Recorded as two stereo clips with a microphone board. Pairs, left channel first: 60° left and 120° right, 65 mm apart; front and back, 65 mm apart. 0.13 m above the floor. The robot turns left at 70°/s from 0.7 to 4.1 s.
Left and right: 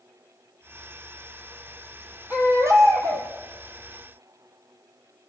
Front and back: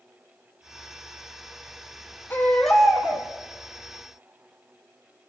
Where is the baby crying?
60° right, 2.5 m; by 3.3 s 125° right, 2.5 m.